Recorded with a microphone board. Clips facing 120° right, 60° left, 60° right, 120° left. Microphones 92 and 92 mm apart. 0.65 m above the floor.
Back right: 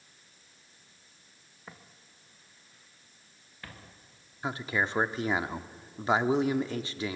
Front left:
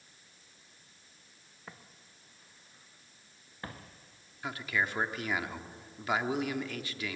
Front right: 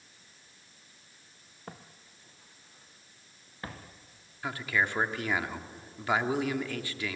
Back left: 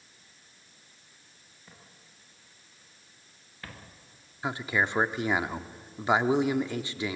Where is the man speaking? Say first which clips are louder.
Back right 3 dB, back left 2 dB; 175° right, 0.9 m.